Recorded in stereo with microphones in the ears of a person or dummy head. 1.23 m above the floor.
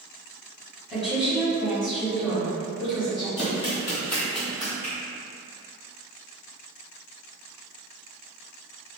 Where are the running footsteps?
30° left (ahead or behind), 1.4 m; by 4.7 s 15° right (ahead or behind), 1.6 m.